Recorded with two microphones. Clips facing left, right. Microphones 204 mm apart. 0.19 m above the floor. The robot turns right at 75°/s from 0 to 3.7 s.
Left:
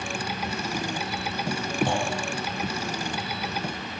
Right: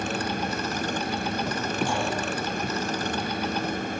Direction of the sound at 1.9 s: 70° left (ahead or behind).